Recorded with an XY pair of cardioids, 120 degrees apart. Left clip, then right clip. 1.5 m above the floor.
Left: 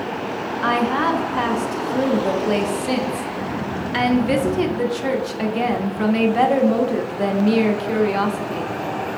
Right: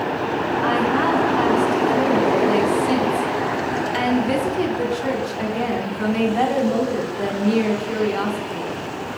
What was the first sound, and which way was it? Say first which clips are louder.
A woman speaking: left 2 dB; 20° left.